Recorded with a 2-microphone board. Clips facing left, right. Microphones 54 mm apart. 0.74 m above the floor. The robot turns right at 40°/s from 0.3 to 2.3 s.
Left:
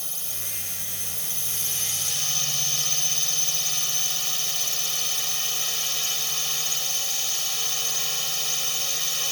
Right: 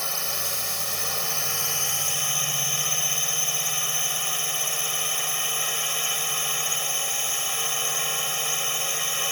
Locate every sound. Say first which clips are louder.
0.0 s a drone: right 10 dB; 105° right; by 9.3 s 25° right